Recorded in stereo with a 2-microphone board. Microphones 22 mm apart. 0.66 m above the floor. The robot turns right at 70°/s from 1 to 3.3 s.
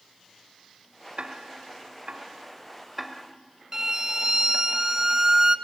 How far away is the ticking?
About 1.2 m.